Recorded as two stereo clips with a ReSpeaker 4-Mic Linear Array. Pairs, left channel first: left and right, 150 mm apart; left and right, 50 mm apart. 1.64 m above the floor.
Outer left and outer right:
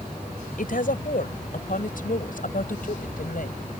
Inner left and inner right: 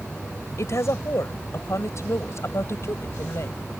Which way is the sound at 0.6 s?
65° left (ahead or behind).